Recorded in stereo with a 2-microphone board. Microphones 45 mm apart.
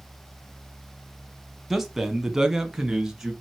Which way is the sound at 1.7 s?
5° right (ahead or behind).